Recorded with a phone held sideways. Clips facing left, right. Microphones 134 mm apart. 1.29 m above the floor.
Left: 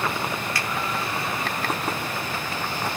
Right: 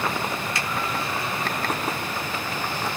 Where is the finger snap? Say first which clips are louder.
Even; 25° right (ahead or behind), 1.1 m.